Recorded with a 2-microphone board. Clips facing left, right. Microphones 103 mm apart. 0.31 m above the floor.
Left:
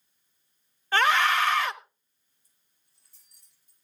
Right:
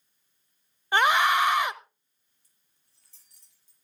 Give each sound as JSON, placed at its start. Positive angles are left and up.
{"t": 0.9, "sound": "a scream", "side_deg": -15, "distance_m": 0.9}
{"t": 2.4, "sound": "keys jangling", "side_deg": -75, "distance_m": 7.0}